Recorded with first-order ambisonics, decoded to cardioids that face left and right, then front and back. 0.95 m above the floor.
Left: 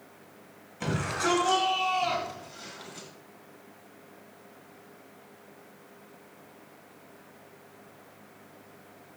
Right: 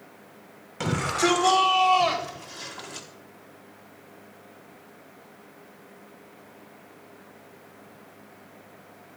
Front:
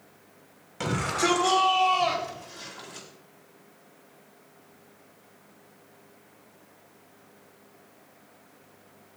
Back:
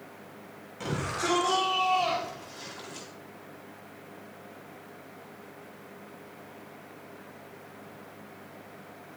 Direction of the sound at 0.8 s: 55° right.